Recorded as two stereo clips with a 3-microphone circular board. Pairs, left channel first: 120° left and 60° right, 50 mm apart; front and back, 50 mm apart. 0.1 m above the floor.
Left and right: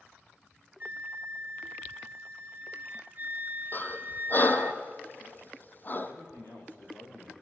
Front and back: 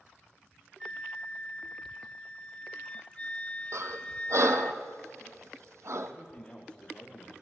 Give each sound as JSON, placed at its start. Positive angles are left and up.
{"t": 0.8, "sound": "a flute", "azimuth_deg": -50, "distance_m": 0.7}
{"t": 3.7, "sound": "breathing", "azimuth_deg": 170, "distance_m": 1.5}
{"t": 6.0, "sound": "a man speaking", "azimuth_deg": 75, "distance_m": 7.0}